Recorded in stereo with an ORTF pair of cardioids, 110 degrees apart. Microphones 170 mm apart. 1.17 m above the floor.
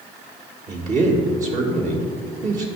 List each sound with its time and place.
0.7 s a man speaking: 50° right, 1.5 m